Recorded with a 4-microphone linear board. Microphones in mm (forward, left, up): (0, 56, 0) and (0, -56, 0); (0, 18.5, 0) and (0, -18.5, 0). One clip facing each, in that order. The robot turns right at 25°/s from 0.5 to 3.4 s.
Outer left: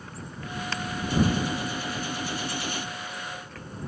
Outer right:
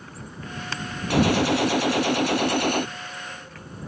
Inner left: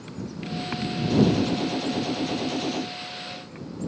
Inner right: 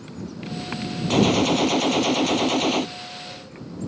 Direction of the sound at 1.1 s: 105° right.